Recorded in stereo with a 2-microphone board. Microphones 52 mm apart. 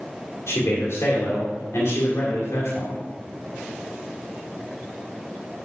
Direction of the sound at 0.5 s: 60° left (ahead or behind).